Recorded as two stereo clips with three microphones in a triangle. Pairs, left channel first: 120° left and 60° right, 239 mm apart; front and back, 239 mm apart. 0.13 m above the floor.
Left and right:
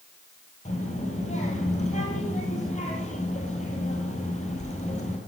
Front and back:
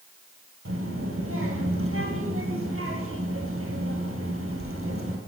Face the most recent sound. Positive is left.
turn(degrees=175)